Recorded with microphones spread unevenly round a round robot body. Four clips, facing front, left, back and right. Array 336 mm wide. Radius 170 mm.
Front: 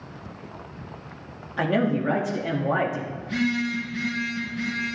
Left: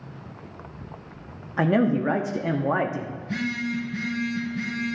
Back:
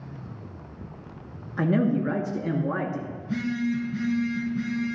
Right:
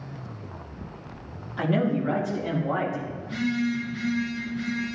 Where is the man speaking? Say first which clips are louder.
Left 3 dB, even; 130° left, 0.9 m.